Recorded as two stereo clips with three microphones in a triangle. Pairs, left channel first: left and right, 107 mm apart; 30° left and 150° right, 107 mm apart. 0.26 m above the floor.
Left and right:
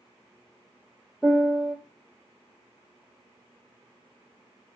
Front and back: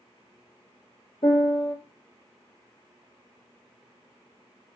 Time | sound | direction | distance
1.2 | a piano | 5° left | 1.6 m